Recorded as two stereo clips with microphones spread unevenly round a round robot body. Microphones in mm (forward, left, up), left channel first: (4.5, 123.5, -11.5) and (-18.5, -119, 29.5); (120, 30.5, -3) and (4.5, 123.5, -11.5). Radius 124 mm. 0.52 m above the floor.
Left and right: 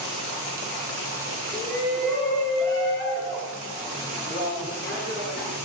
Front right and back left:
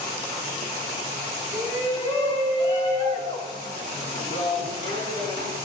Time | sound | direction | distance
1.5 | a shout | 10° left | 5.5 m